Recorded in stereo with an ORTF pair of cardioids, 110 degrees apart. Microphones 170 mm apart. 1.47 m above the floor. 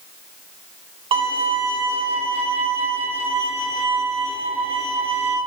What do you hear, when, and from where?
1.1 s a violin: 30° right, 1.1 m